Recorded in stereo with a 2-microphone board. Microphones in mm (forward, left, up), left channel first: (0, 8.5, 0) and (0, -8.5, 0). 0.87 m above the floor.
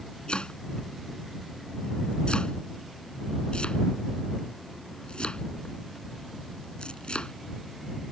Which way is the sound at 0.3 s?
70° left (ahead or behind).